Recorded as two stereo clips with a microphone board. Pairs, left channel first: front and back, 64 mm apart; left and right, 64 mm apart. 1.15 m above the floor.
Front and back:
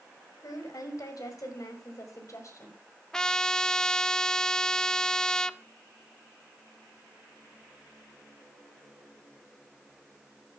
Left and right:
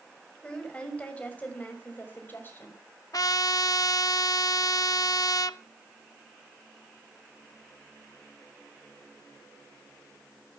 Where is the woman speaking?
15° left, 5 m; by 2.8 s 35° left, 4.5 m.